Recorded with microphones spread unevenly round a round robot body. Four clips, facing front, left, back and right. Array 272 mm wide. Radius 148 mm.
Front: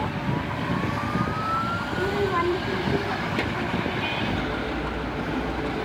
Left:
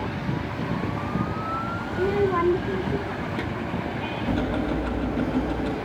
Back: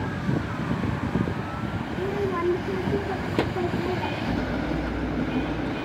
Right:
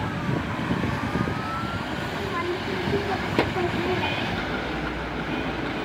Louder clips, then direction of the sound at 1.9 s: Left 12 dB, front 2 dB; 75° left.